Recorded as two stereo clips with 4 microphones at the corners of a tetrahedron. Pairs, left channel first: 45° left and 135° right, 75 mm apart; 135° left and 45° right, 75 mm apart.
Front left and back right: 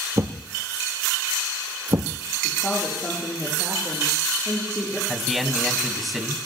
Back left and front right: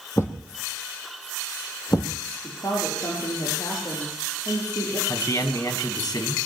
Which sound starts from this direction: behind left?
A man speaking, at 5.1 s.